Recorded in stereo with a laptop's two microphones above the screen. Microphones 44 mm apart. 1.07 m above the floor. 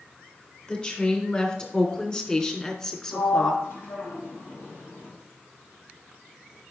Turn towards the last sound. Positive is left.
turn(degrees=70)  # may be behind; listen again after turning